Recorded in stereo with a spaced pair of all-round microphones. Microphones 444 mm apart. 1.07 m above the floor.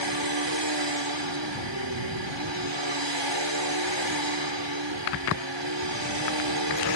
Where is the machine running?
70° right (ahead or behind).